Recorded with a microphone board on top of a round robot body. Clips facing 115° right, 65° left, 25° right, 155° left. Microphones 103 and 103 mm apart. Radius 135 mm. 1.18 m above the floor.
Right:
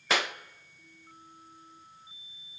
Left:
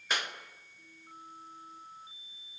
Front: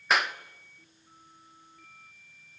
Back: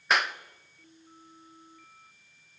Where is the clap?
110° right, 1.1 m.